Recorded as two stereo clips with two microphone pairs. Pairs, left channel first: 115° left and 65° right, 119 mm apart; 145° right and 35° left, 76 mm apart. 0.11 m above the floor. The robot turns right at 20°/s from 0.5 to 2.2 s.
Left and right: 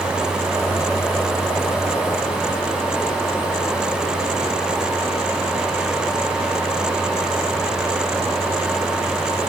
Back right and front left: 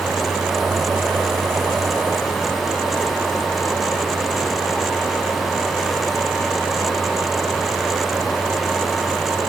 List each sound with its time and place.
Only background noise.